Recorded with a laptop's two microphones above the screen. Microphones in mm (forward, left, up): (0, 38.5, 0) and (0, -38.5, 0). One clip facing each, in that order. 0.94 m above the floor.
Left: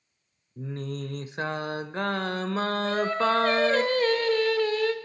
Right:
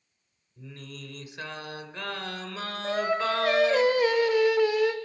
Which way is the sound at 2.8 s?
15° right (ahead or behind).